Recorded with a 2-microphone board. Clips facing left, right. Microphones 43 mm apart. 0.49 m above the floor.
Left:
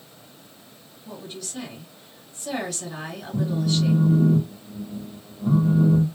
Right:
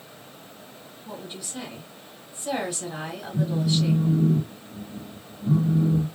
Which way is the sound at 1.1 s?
15° right (ahead or behind).